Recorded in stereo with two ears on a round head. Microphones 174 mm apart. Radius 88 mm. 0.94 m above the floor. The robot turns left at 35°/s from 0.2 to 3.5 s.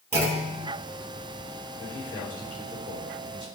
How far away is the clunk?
About 3 m.